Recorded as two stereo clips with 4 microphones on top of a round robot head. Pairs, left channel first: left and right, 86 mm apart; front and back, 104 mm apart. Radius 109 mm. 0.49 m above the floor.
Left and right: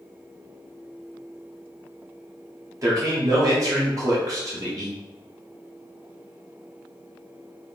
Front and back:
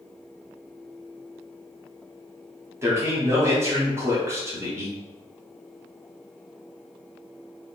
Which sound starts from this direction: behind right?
A man speaking, at 2.8 s.